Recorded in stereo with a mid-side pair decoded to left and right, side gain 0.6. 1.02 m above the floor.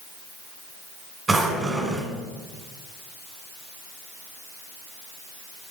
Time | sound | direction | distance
1.3 | a drawer | 25° right | 1.8 m